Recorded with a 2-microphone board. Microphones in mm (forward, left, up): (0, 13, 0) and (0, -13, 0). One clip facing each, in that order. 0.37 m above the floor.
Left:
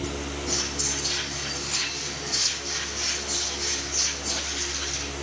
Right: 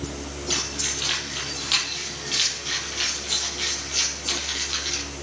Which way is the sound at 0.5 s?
85° right.